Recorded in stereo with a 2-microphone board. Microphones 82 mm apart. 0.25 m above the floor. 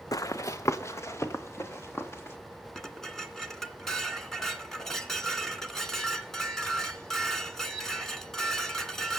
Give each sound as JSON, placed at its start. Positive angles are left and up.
{"t": 0.1, "sound": "running footsteps", "side_deg": 45, "distance_m": 0.7}
{"t": 2.8, "sound": "dishes clattering", "side_deg": 5, "distance_m": 2.0}